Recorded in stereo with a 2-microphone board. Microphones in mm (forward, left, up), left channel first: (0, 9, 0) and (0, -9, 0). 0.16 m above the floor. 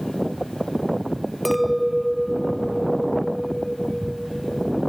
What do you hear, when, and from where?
1.4 s a clink: 5° left (ahead or behind)